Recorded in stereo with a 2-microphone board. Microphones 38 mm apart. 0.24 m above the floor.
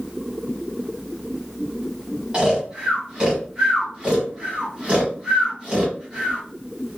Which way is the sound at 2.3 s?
30° right (ahead or behind).